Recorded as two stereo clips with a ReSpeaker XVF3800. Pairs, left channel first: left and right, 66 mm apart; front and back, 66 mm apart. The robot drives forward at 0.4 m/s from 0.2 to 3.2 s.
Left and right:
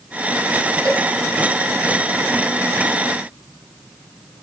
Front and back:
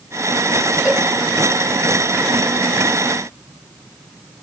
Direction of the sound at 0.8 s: 100° right.